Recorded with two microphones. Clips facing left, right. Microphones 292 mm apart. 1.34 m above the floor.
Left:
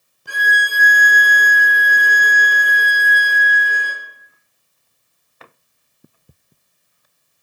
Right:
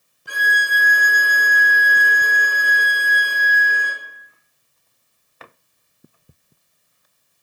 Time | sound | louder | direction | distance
0.3 | a violin | left 2 dB | 50° left (ahead or behind) | 3.5 m